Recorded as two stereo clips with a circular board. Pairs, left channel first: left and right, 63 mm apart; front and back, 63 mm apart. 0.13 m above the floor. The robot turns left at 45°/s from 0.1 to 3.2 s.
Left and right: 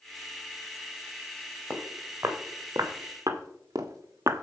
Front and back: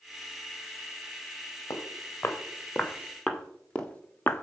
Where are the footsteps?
20° right, 2.5 m; by 4.4 s 60° right, 0.8 m.